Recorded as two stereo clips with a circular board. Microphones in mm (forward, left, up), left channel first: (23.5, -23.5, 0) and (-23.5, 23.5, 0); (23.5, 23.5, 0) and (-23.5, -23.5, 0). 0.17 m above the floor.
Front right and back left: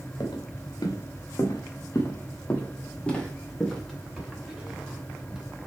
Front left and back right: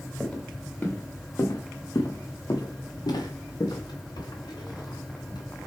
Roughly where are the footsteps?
Ahead right.